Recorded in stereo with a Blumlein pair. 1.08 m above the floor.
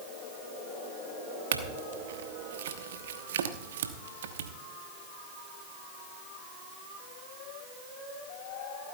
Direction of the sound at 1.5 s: 60° right.